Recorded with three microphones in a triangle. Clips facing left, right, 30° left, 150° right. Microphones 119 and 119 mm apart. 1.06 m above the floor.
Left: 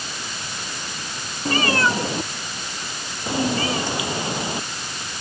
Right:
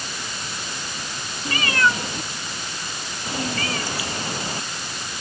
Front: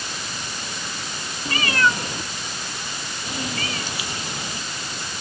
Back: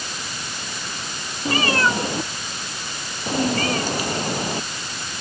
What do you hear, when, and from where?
1.4 s a cat meowing: 150° left; by 5.2 s 165° left